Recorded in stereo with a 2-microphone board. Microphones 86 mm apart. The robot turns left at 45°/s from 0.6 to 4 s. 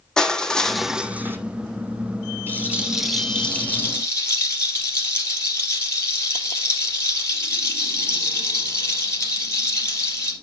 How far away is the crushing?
About 0.9 m.